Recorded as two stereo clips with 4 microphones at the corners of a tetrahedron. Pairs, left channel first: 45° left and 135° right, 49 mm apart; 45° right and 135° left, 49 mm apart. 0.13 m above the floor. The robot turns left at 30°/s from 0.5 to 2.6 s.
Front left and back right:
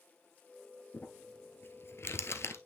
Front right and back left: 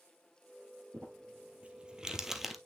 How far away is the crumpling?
About 1.1 m.